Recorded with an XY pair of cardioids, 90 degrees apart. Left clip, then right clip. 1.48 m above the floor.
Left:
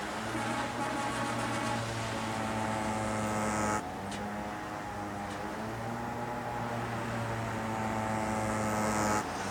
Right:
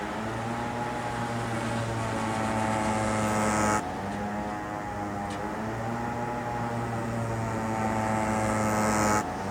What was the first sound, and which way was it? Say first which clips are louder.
A motorcycle: right 2 dB; 50° right.